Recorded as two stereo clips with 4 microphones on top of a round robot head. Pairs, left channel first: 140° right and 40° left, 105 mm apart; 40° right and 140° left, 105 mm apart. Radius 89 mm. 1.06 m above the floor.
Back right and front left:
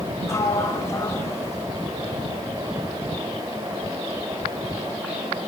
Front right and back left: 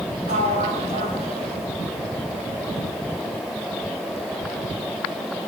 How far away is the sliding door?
About 5 m.